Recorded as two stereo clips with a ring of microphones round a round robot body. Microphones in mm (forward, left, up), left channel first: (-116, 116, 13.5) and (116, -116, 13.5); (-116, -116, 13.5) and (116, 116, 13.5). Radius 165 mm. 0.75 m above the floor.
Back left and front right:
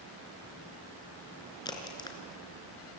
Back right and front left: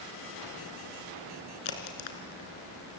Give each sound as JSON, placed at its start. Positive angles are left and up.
{"t": 1.6, "sound": "a crack", "azimuth_deg": -145, "distance_m": 3.0}